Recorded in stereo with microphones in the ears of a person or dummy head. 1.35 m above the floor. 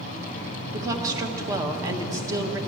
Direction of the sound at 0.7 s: 20° right (ahead or behind).